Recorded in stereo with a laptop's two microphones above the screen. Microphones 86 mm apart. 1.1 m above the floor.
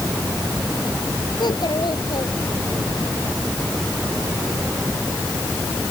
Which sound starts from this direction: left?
A child speaking, at 1.4 s.